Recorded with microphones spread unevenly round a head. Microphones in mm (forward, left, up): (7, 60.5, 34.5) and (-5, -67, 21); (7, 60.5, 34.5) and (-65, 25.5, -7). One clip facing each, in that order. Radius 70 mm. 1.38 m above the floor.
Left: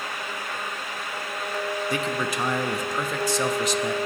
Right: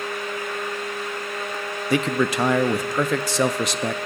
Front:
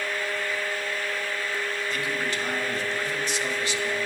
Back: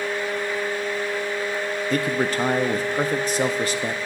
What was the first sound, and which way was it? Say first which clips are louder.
A man speaking: right 6 dB, back 10 dB; 115° right.